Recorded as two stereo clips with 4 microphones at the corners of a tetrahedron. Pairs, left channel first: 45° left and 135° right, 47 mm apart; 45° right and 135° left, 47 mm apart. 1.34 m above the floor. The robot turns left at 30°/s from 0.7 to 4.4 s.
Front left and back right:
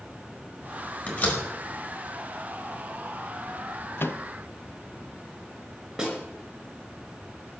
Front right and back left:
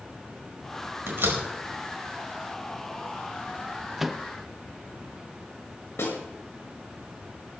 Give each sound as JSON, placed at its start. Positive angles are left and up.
{"t": 1.1, "sound": "a door slam", "azimuth_deg": 100, "distance_m": 4.5}
{"t": 4.0, "sound": "a microwave", "azimuth_deg": 50, "distance_m": 0.7}
{"t": 6.0, "sound": "a snare drum", "azimuth_deg": -60, "distance_m": 5.0}